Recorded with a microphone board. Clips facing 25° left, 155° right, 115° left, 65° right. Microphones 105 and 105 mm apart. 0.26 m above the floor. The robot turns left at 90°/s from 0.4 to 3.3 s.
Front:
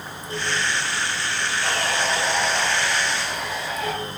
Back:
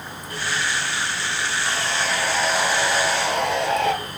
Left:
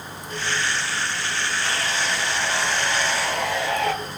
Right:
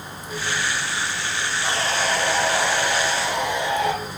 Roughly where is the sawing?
Ahead.